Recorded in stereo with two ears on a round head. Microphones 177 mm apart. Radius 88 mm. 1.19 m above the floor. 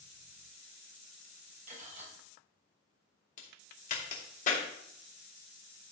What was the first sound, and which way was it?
Cutlery clinking, 40° right (ahead or behind).